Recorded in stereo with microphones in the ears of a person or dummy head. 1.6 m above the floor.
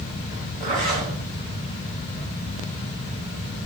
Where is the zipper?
35° right (ahead or behind), 1.9 m.